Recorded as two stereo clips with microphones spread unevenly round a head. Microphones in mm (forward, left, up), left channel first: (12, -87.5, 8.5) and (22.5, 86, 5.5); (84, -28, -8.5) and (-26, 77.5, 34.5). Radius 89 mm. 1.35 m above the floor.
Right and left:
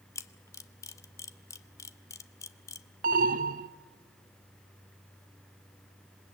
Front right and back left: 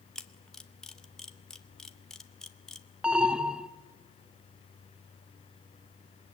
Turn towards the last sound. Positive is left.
turn(degrees=70)